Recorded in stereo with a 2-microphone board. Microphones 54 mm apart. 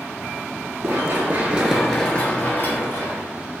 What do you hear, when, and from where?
0.8 s running footsteps: 50° right (ahead or behind), 0.8 m; by 3.2 s 50° left (ahead or behind), 1.1 m